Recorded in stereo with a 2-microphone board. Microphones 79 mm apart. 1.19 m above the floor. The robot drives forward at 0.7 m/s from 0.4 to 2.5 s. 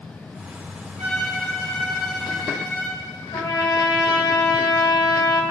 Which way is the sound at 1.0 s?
25° left (ahead or behind).